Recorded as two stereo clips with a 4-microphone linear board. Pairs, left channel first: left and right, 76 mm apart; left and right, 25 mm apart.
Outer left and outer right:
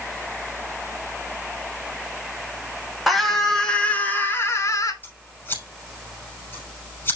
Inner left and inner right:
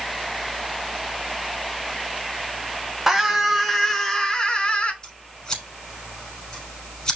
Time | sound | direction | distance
3.1 | a scream | 5° right (ahead or behind) | 3.5 m
5.0 | scissors | 25° left (ahead or behind) | 5.5 m